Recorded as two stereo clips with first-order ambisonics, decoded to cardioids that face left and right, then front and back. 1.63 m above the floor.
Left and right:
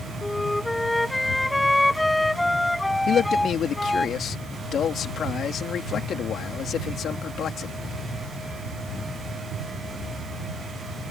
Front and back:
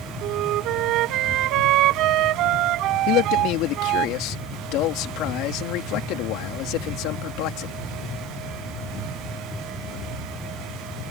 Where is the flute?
175° left.